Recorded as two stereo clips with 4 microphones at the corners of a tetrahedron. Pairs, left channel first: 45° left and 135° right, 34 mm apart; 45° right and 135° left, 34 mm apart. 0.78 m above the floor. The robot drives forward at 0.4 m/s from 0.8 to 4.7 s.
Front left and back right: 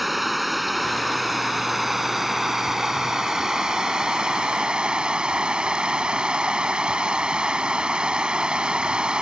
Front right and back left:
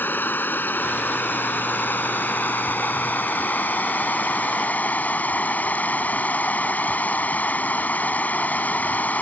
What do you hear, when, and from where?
0.0 s running water: 45° right; by 9.2 s 75° right